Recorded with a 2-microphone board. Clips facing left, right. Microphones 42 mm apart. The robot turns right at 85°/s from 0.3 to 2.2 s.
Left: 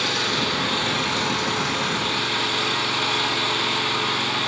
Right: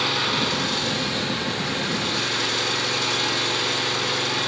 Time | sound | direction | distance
0.0 | an engine running | 5° right | 3.5 m